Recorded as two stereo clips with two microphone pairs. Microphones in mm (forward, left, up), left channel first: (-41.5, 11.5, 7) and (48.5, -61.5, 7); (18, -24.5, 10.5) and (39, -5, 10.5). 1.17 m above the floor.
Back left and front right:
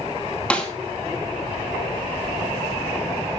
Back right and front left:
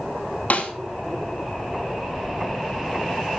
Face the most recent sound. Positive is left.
turn(degrees=-140)